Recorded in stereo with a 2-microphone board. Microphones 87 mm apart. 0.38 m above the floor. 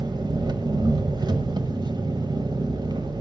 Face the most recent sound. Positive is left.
turn(degrees=-55)  # may be behind; listen again after turning